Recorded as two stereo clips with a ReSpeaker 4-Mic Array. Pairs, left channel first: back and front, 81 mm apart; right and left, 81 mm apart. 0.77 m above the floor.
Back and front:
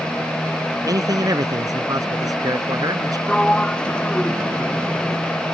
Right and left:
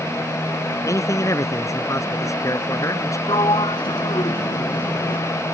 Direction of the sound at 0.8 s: 40° right.